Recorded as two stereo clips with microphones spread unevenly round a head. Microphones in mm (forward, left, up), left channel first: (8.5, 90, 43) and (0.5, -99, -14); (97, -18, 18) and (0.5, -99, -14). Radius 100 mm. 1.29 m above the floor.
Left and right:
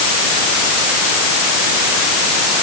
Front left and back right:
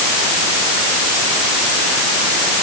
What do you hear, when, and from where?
Only background noise.